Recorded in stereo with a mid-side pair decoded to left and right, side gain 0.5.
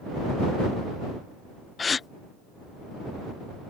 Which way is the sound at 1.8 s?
30° left.